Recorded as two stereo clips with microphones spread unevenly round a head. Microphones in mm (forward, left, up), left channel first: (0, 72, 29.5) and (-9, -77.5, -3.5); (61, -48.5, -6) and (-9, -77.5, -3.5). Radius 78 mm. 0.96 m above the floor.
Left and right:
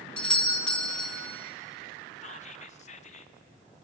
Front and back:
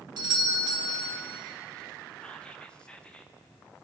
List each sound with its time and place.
0.2 s a doorbell: straight behind, 1.7 m
2.2 s whispering: 85° left, 0.9 m